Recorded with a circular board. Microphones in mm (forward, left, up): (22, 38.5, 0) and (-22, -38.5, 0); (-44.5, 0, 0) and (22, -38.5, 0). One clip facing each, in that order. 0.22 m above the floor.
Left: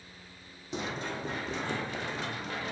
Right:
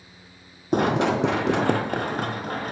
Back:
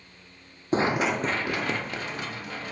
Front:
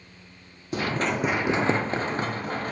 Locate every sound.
0.7 s running footsteps: 155° right, 0.7 m; by 2.7 s 80° right, 2 m